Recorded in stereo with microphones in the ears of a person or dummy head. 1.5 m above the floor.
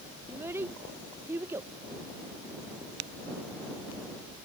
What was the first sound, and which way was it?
A child speaking, 10° right (ahead or behind).